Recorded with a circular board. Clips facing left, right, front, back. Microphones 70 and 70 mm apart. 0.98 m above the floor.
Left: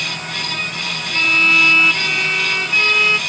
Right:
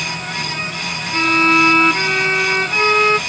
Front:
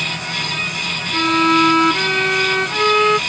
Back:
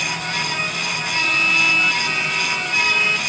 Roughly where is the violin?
Ahead right.